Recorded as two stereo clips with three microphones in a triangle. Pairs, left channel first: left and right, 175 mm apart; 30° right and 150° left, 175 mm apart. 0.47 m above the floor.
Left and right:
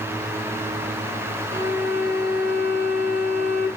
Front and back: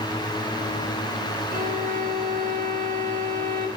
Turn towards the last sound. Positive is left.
turn(degrees=110)